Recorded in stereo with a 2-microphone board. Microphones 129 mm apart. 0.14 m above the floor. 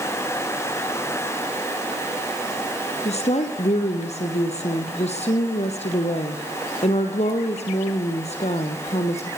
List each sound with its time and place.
3.0 s a woman speaking: 55° left (ahead or behind), 3.5 m